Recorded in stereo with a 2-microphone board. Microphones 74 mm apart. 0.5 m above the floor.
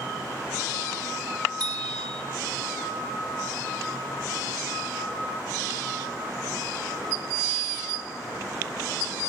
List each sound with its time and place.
1.6 s a bicycle bell: 75° right (ahead or behind), 2 m